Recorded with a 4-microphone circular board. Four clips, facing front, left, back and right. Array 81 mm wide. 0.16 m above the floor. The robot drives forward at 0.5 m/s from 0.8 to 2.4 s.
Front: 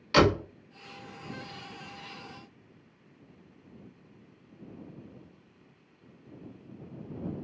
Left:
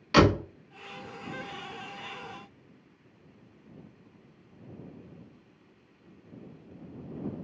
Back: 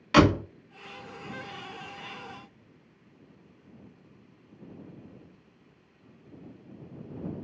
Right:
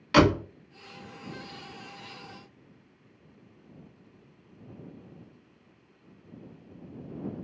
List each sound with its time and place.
0.1 s a door slam: 160° right, 0.7 m